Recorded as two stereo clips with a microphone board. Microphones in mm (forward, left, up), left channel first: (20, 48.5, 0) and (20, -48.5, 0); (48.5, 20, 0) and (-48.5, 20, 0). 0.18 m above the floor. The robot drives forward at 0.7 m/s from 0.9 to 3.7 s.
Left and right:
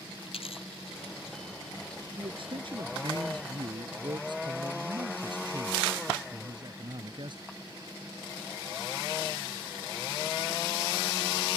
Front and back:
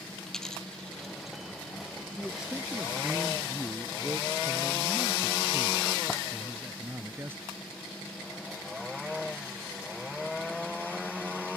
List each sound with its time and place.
0.3 s a dropped coin: 85° left; by 1.4 s 95° left
2.2 s a man speaking: 95° right; by 7.4 s 115° right